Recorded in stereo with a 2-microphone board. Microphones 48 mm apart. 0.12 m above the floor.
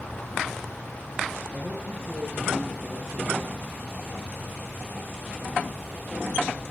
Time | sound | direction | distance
1.5 | a man speaking | 30° left (ahead or behind) | 2.5 m